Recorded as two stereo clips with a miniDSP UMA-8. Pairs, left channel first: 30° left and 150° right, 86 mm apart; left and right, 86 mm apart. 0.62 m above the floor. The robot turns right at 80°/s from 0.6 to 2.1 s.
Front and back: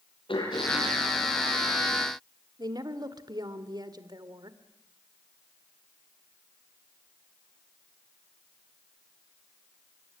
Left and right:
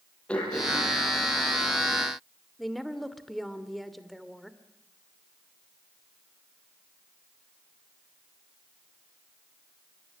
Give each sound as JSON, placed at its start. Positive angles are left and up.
{"t": 0.3, "sound": "throat clearing", "azimuth_deg": 10, "distance_m": 8.5}
{"t": 2.6, "sound": "a woman speaking", "azimuth_deg": 180, "distance_m": 2.0}